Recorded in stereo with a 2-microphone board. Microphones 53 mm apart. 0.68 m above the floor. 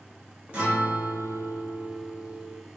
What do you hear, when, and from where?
0.5 s a guitar: 25° right (ahead or behind), 1.3 m